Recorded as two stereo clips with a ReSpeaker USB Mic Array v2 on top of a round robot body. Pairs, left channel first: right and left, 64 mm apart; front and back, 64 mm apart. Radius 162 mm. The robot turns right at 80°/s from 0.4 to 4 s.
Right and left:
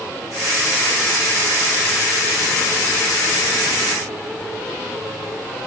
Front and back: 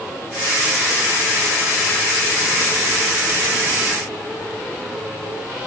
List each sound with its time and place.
Only background noise.